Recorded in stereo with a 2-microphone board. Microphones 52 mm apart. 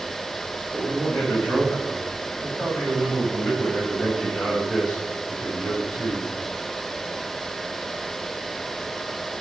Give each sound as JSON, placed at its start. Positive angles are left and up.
{"t": 0.7, "sound": "a man speaking", "side_deg": 45, "distance_m": 6.5}